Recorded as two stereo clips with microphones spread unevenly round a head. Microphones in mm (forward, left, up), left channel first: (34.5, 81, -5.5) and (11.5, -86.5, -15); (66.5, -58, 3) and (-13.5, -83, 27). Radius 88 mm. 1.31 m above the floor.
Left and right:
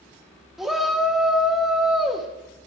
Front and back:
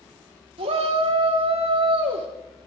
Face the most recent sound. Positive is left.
turn(degrees=175)